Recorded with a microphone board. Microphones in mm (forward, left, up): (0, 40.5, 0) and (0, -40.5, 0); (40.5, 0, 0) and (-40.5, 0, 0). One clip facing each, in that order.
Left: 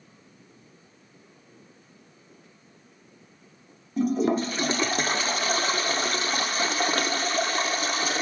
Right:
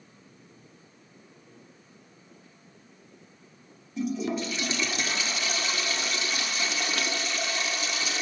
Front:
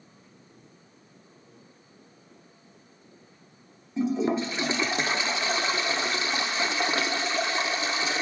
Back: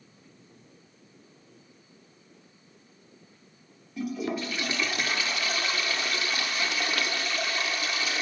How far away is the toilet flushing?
About 0.8 m.